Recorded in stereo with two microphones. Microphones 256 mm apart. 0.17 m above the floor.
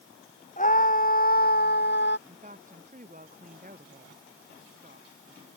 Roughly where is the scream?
Left.